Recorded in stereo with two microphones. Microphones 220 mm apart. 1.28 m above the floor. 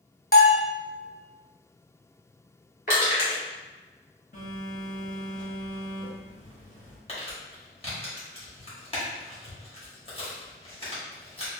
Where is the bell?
45° left (ahead or behind), 0.6 m.